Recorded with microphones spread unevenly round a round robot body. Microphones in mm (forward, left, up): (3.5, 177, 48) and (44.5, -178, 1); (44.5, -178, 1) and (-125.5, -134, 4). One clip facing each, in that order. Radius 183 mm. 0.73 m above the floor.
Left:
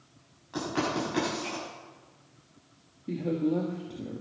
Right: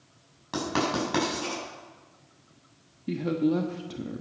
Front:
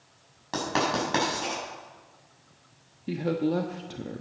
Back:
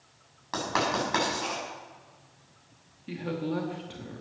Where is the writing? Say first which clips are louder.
Right 2 dB, front 2 dB; 75° right, 7 m.